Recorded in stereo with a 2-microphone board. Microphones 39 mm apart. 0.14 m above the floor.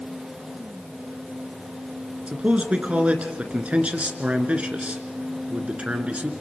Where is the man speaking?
35° right (ahead or behind), 2 m.